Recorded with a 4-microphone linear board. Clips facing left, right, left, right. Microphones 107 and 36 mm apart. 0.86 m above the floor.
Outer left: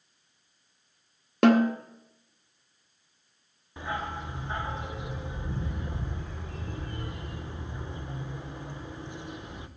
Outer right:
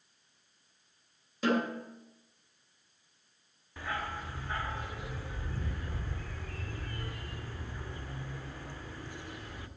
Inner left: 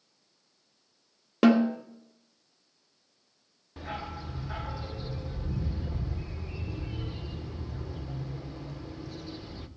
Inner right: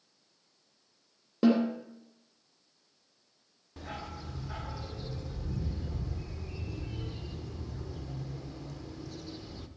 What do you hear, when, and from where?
1.4 s a snare drum: 60° left (ahead or behind), 1.1 m
3.8 s a dog barking: 20° left (ahead or behind), 0.7 m